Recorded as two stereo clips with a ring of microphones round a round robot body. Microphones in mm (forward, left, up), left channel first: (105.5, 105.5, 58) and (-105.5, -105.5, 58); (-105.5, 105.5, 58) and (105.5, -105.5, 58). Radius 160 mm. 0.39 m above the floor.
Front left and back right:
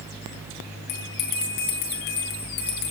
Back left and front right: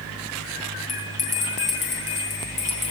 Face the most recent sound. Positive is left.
turn(degrees=70)